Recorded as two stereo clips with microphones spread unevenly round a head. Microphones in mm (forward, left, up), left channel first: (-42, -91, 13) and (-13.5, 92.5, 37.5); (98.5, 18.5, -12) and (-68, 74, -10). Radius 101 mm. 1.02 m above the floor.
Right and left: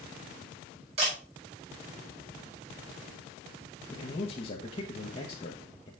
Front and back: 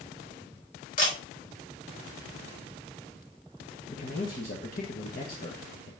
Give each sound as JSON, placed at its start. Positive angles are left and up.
{"t": 1.0, "sound": "a camera shutter", "azimuth_deg": 20, "distance_m": 5.0}
{"t": 3.9, "sound": "a man speaking", "azimuth_deg": -55, "distance_m": 1.1}